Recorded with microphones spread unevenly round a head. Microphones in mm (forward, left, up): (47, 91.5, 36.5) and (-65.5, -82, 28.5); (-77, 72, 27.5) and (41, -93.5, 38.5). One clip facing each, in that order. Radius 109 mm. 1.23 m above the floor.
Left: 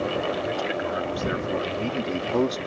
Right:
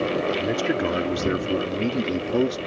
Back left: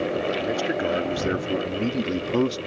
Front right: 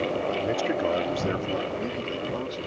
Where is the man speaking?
145° right; by 2.6 s 150° left.